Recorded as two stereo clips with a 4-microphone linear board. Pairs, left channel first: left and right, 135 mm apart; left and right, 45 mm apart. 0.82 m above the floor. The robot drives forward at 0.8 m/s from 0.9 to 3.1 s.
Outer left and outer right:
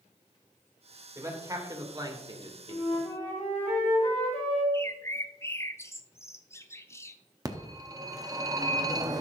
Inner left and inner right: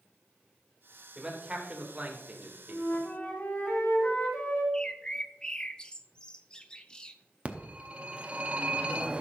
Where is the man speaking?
25° right (ahead or behind), 2.5 m; by 3.0 s 50° right (ahead or behind), 1.3 m.